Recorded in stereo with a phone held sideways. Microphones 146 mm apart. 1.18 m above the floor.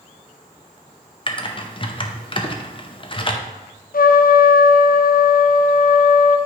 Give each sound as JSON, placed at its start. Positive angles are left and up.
{"t": 1.3, "sound": "typing on a keyboard", "side_deg": 35, "distance_m": 0.7}
{"t": 3.9, "sound": "a trumpet", "side_deg": 80, "distance_m": 0.5}